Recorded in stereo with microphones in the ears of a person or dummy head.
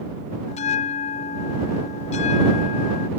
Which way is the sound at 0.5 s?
35° left (ahead or behind).